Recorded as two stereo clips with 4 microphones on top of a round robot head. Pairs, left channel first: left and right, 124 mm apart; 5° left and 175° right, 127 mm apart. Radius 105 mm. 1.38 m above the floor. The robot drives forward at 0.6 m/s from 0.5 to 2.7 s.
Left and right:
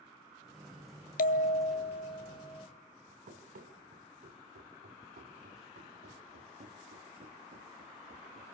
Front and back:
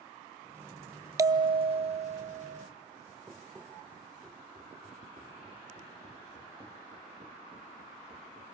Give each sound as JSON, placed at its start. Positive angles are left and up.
{"t": 1.2, "sound": "a bell", "azimuth_deg": 120, "distance_m": 0.5}
{"t": 3.3, "sound": "running footsteps", "azimuth_deg": -95, "distance_m": 3.0}